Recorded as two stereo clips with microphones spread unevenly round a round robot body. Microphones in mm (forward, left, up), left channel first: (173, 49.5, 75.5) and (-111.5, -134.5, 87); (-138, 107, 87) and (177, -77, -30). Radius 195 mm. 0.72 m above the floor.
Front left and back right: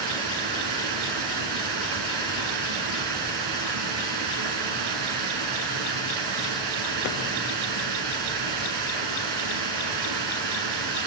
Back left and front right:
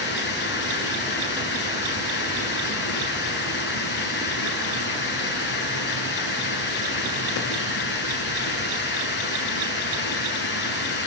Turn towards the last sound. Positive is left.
turn(degrees=-145)